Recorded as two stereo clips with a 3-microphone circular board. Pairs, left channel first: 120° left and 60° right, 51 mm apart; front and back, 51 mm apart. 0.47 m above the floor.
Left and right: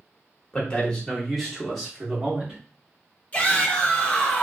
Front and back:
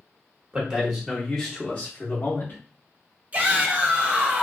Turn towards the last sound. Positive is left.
turn(degrees=155)